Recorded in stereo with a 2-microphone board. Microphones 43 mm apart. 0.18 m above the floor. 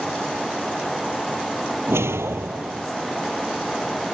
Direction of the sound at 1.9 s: 75° right (ahead or behind).